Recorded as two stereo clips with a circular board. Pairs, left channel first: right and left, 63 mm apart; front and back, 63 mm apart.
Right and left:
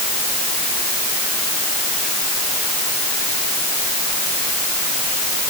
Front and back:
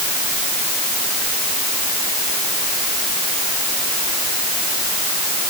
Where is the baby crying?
I don't hear a baby crying.